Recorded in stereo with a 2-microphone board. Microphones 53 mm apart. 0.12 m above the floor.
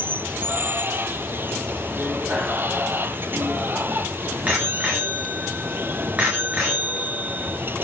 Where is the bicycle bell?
25° right (ahead or behind), 8 m.